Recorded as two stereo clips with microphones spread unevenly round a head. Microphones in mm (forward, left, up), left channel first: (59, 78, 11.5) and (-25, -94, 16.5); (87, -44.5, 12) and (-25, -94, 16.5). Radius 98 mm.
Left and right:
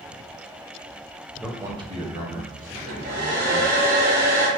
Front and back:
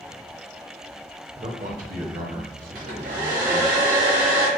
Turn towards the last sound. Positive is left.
turn(degrees=-165)